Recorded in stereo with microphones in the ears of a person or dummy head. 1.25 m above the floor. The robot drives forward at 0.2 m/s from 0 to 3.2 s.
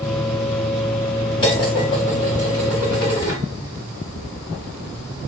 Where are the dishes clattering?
25° left (ahead or behind), 1.5 m; by 3.4 s 20° left (ahead or behind), 1.8 m.